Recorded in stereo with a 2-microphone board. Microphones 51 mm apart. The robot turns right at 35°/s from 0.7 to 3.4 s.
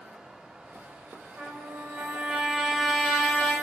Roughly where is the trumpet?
Ahead right.